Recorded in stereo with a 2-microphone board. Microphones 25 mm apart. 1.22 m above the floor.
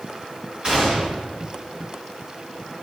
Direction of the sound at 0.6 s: 45° right (ahead or behind).